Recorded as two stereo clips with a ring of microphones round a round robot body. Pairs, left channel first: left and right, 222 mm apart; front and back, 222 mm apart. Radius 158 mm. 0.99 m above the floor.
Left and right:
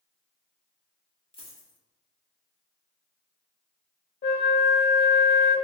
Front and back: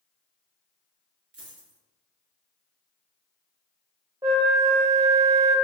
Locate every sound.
1.3 s a dropped coin: 155° left, 1.4 m
4.2 s a flute: 110° left, 0.9 m